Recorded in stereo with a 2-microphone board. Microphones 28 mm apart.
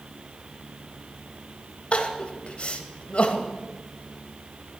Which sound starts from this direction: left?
Crying, at 1.9 s.